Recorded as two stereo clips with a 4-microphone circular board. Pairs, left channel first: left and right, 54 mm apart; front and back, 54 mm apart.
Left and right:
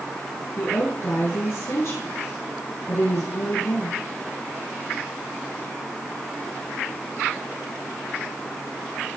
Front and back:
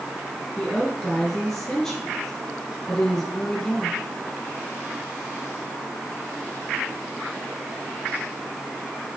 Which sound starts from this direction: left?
A woman speaking, at 0.6 s.